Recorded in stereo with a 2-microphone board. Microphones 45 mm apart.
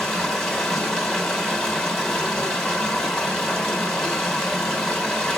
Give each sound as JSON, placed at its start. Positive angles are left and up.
{"t": 0.0, "sound": "running water", "side_deg": 10, "distance_m": 2.5}